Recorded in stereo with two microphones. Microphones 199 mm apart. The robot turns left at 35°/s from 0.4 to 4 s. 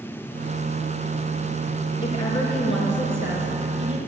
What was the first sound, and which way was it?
A woman speaking, 25° left.